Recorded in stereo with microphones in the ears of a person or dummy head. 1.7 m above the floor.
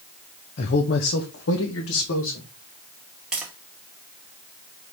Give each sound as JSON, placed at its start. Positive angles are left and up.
{"t": 0.6, "sound": "a man speaking", "side_deg": 45, "distance_m": 0.8}
{"t": 3.3, "sound": "tapping", "side_deg": -5, "distance_m": 0.8}